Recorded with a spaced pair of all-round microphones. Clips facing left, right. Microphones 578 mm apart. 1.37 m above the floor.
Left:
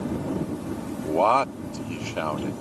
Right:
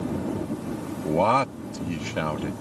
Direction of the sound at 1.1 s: 45° right (ahead or behind).